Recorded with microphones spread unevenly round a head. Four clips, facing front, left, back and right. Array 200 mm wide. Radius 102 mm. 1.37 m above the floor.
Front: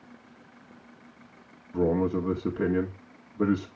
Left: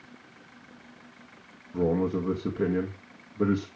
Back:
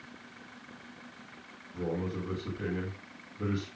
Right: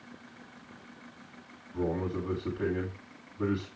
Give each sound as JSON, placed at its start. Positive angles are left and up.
{"t": 1.7, "sound": "a man speaking", "azimuth_deg": 40, "distance_m": 1.5}